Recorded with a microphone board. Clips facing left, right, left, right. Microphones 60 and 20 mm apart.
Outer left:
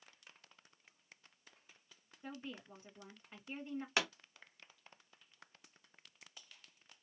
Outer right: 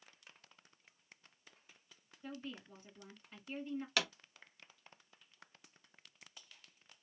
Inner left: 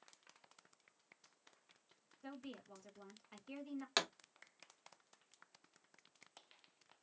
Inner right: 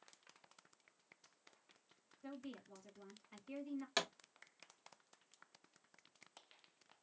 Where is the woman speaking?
20° left (ahead or behind), 1.8 m.